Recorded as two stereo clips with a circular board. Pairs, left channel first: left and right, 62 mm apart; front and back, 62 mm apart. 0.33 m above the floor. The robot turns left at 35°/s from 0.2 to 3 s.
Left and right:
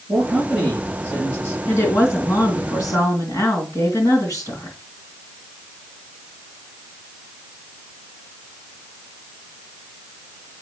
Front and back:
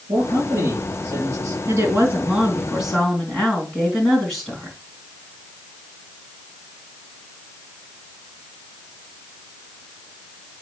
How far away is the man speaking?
About 5 m.